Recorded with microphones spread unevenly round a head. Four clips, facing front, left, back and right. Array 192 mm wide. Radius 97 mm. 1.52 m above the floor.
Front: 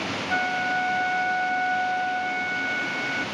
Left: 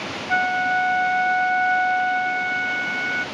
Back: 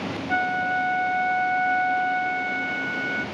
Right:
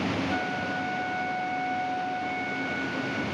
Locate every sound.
0.3 s a flute: 95° left, 1.1 m